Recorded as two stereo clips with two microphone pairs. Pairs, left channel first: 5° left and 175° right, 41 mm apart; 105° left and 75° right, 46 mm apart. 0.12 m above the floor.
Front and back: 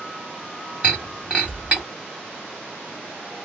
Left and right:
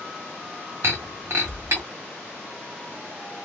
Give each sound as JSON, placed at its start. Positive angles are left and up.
{"t": 0.8, "sound": "breaking glass", "azimuth_deg": -115, "distance_m": 1.6}